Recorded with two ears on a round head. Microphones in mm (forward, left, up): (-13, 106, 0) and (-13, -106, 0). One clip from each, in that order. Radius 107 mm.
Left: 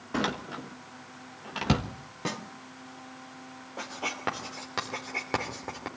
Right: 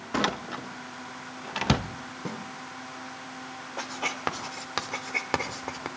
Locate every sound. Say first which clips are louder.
0.1 s a door slam: right 3 dB; 20° right (ahead or behind), 1.1 m
2.2 s a snare drum: left 5 dB; 60° left (ahead or behind), 2.5 m
3.8 s writing: right 2 dB; 25° right (ahead or behind), 3 m